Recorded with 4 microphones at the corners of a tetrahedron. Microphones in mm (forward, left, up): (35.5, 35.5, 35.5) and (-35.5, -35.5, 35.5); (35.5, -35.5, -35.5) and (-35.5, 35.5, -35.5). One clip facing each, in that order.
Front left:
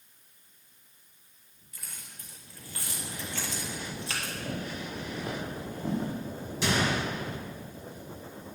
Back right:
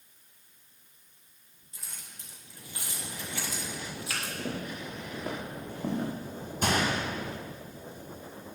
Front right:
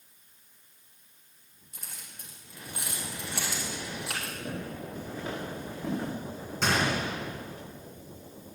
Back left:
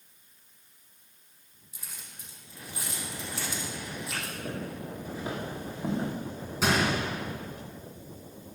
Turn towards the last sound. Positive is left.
turn(degrees=-140)